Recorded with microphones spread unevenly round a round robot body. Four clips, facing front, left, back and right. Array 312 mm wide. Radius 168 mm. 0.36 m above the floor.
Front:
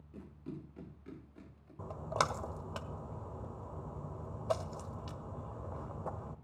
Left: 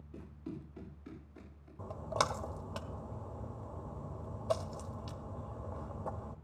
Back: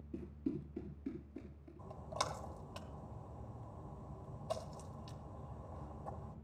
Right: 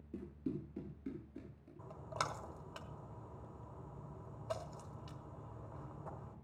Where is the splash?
40° left, 1.6 m.